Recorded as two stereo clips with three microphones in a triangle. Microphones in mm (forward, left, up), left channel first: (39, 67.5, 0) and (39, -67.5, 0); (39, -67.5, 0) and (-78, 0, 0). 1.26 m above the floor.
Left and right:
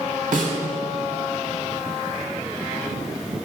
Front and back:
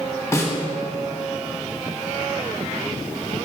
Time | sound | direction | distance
0.3 | a snare drum | 95° right | 1.4 m